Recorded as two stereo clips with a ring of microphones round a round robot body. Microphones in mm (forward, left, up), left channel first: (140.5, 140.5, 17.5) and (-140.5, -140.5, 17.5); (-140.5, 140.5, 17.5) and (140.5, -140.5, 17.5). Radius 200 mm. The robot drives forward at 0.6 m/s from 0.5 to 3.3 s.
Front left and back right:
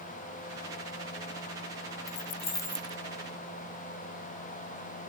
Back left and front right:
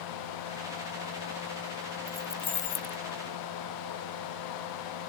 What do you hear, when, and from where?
2.1 s keys jangling: 40° left, 0.7 m; by 3.0 s 145° left, 0.7 m